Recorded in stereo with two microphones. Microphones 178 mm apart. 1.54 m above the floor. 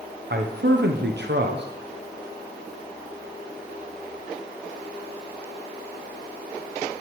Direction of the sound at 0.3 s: 75° right (ahead or behind).